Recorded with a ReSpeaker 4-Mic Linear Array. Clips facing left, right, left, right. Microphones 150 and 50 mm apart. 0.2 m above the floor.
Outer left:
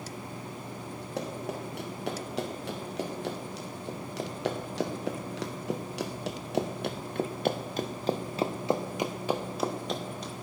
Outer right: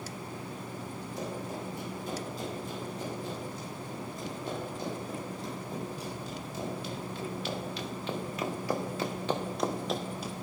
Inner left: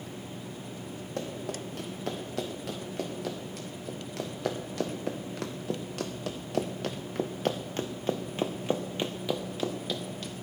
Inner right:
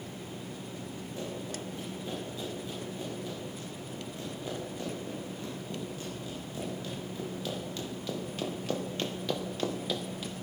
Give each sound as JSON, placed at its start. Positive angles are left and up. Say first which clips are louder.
{"t": 1.2, "sound": "running footsteps", "louder": "outer left 3 dB, inner left 4 dB", "side_deg": 70, "distance_m": 5.0}